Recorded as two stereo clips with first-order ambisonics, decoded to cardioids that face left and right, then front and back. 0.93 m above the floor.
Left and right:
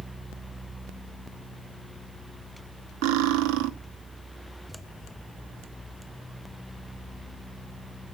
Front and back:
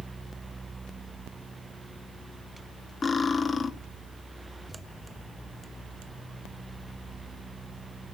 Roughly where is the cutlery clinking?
Right.